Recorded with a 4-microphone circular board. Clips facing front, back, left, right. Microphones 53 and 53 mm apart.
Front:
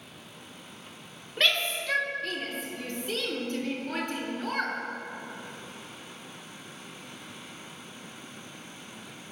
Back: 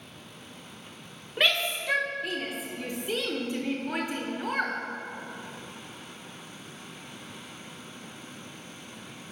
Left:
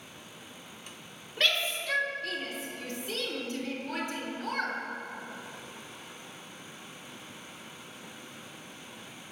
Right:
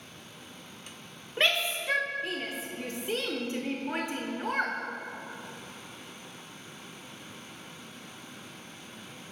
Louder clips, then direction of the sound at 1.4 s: Back 1 dB, right 2 dB; 120° right.